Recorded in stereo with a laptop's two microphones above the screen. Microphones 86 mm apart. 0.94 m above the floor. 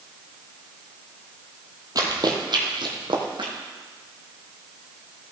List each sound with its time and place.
1.9 s running footsteps: 45° right (ahead or behind), 1.3 m; by 3.5 s 65° right (ahead or behind), 2 m